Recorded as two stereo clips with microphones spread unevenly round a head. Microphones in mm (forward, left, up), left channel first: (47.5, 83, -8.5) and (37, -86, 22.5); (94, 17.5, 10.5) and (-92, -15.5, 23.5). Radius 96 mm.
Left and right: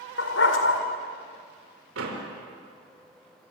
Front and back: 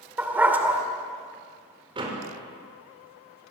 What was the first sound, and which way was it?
A dog barking, 110° left.